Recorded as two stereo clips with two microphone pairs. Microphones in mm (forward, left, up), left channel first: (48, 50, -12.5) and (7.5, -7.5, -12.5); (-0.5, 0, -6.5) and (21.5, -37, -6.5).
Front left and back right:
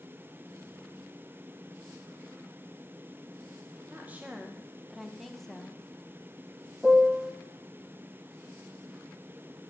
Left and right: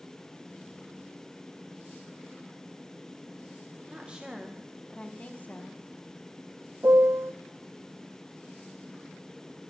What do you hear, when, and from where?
3.9 s a woman speaking: 80° right, 0.9 m; by 5.8 s 130° left, 1.1 m
6.8 s a piano: 40° right, 0.6 m